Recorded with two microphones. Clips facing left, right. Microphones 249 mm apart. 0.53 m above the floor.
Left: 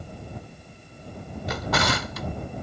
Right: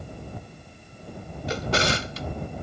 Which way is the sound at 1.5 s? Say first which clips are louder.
Right 1 dB; 30° right (ahead or behind).